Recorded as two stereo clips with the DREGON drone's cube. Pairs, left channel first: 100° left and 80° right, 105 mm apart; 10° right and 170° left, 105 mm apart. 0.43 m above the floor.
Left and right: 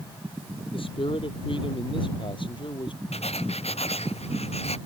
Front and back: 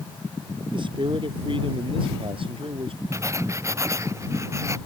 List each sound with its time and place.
0.7 s a man speaking: 130° left; by 3.0 s 140° left
3.1 s writing: 105° left